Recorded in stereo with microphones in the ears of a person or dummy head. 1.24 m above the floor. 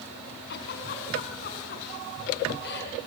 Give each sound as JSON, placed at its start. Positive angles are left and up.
{"t": 0.5, "sound": "a giggle", "side_deg": 60, "distance_m": 4.5}